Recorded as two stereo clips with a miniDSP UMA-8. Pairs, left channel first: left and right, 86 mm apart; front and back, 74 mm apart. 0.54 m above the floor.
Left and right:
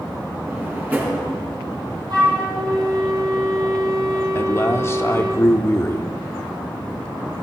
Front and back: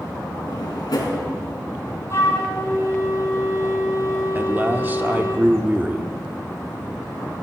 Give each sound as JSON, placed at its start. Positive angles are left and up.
{"t": 0.5, "sound": "a drawer", "azimuth_deg": -20, "distance_m": 4.0}
{"t": 2.1, "sound": "a flute", "azimuth_deg": -50, "distance_m": 2.5}
{"t": 4.3, "sound": "a man speaking", "azimuth_deg": 135, "distance_m": 0.9}